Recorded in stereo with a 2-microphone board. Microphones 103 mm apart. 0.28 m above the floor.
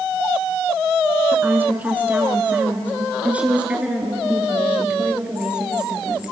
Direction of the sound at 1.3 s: 15° right (ahead or behind).